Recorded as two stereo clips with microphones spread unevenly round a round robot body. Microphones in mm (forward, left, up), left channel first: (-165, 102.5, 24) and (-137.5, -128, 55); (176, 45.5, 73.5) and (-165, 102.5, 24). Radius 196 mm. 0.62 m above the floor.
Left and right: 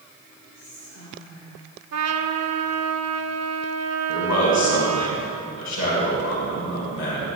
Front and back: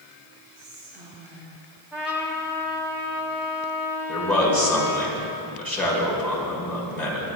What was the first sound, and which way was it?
Whispering, 110° left.